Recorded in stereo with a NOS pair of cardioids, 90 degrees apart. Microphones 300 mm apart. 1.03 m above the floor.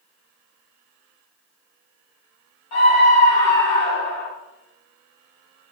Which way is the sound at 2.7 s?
60° left.